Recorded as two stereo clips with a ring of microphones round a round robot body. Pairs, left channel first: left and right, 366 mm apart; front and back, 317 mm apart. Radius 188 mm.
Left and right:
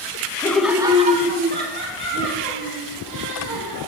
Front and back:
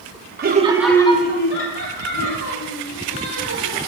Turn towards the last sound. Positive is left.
turn(degrees=-30)